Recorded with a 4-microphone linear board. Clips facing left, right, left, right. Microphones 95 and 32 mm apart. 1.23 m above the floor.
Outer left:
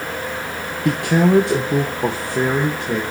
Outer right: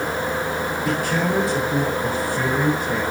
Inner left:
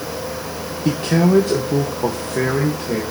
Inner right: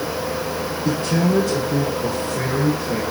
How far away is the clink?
No clink in this recording.